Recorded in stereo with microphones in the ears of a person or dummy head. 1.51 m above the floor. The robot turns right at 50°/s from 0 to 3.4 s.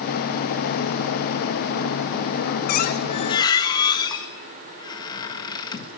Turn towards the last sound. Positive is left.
turn(degrees=165)